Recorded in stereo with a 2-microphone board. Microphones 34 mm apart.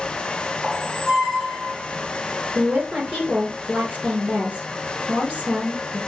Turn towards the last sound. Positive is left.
turn(degrees=-45)  # may be behind; listen again after turning